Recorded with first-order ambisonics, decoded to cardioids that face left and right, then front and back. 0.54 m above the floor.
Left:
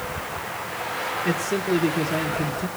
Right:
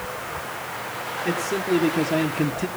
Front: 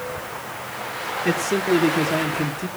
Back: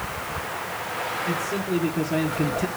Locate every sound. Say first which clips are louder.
1.2 s a man speaking: right 2 dB, front 5 dB; straight ahead, 1.5 m; by 2.7 s 120° right, 1.2 m